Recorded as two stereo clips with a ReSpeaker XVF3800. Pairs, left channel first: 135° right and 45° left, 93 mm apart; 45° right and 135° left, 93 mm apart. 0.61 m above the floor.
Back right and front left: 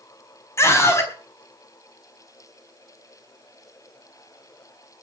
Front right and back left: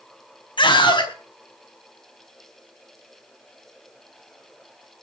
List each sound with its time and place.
0.6 s a scream: 75° right, 4.5 m